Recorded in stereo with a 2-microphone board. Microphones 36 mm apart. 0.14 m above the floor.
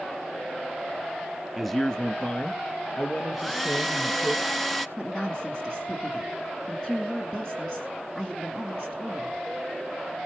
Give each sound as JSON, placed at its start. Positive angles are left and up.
{"t": 1.6, "sound": "a man speaking", "side_deg": -5, "distance_m": 1.2}
{"t": 3.3, "sound": "a hair dryer", "side_deg": 5, "distance_m": 0.8}
{"t": 5.0, "sound": "a woman speaking", "side_deg": 25, "distance_m": 1.7}